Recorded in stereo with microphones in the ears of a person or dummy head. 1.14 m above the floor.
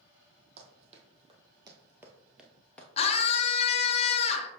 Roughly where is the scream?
Left.